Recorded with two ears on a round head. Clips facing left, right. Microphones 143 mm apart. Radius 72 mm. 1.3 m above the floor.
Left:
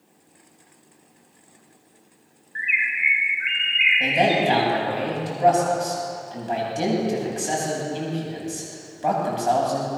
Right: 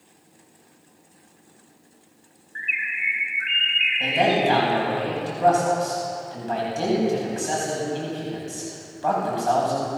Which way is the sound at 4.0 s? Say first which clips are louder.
Even; 20° left (ahead or behind).